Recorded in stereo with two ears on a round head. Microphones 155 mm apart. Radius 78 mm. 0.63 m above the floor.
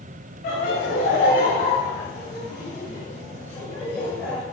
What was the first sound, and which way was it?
Laughter, 55° left (ahead or behind).